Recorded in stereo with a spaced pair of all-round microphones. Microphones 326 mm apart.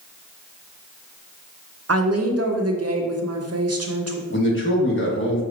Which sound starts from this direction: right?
A woman speaking, at 1.9 s.